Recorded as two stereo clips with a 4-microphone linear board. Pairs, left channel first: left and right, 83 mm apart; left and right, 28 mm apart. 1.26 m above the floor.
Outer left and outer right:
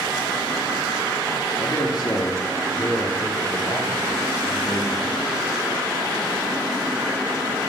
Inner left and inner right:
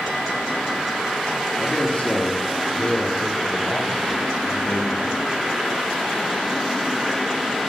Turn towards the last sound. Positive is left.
turn(degrees=30)  # may be behind; listen again after turning